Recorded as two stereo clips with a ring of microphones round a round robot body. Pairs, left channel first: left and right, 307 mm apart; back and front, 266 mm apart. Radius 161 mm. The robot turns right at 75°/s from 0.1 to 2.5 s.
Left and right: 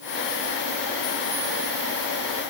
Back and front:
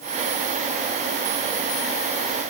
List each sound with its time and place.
Only background noise.